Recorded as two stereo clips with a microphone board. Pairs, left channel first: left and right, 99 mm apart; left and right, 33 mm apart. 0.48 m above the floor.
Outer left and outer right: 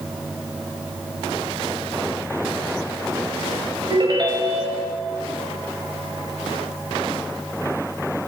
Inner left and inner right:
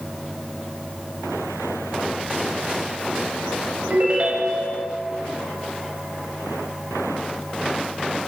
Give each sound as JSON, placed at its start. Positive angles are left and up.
{"t": 3.9, "sound": "a ringtone", "side_deg": -50, "distance_m": 1.0}